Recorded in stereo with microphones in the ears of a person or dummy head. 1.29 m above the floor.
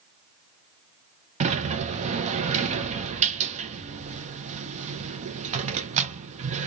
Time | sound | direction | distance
1.4 | a sliding door | 35° right (ahead or behind) | 0.7 m